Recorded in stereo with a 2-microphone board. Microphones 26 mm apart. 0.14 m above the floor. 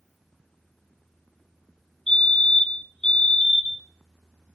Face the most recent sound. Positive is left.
turn(degrees=20)  # may be behind; listen again after turning